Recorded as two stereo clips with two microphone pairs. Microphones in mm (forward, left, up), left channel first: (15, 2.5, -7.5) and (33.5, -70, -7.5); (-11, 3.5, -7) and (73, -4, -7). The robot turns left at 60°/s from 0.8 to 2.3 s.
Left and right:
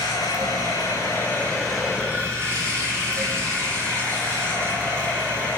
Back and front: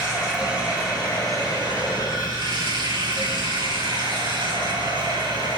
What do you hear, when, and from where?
0.0 s running water: 65° left, 5 m; by 5.6 s 25° right, 5 m